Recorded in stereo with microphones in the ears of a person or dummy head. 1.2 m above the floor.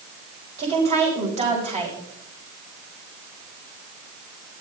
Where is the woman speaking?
30° right (ahead or behind), 6 m.